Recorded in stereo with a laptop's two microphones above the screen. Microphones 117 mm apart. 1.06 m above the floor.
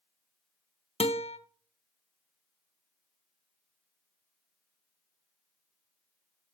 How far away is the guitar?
About 0.6 m.